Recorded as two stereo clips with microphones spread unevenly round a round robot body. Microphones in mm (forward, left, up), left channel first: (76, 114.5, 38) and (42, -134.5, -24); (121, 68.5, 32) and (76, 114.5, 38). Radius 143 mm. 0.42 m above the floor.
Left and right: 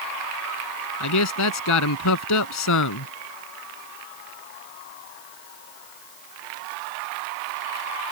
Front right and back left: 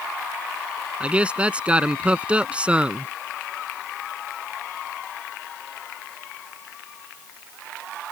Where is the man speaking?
60° left.